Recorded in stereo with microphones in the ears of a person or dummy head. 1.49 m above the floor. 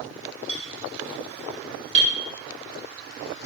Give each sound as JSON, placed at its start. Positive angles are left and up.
{"t": 0.5, "sound": "a clink", "side_deg": -45, "distance_m": 4.0}